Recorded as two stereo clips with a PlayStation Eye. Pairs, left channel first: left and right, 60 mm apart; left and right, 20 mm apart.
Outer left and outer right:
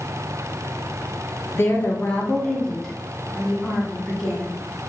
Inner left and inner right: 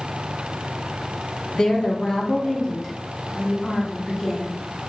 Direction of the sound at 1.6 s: 45° left (ahead or behind).